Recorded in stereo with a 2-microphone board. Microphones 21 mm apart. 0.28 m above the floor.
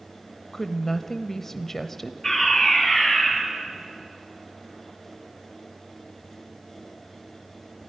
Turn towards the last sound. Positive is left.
turn(degrees=15)  # may be behind; listen again after turning